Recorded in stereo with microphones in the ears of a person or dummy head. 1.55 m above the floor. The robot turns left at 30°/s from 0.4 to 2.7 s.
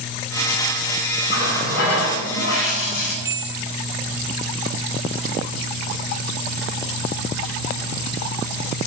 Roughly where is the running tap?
Behind left.